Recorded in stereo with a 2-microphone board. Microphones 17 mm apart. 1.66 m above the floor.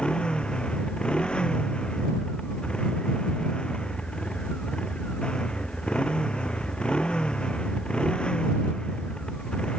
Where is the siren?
No siren in this recording.